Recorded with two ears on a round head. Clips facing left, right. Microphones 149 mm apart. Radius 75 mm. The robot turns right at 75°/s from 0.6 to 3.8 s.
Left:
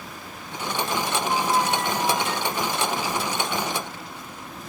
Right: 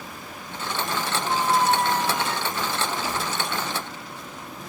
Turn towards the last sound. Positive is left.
turn(degrees=10)  # may be behind; listen again after turning